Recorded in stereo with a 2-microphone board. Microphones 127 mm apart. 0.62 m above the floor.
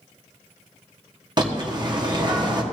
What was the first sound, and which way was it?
A bird, 35° right (ahead or behind).